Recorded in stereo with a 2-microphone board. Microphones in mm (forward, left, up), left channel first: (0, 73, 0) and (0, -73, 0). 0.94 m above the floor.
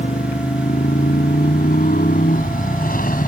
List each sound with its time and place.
0.0 s a motorcycle: 75° left (ahead or behind); by 3.3 s 85° left